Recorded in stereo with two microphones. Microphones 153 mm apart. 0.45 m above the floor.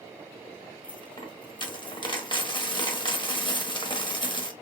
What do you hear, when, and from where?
0.8 s a dropped coin: 30° left (ahead or behind), 0.9 m